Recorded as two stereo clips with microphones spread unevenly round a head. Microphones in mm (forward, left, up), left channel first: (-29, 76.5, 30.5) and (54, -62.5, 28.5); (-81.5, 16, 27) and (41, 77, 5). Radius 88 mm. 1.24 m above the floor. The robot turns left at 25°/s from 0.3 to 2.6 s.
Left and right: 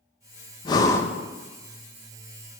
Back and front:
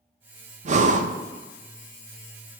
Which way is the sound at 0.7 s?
60° left.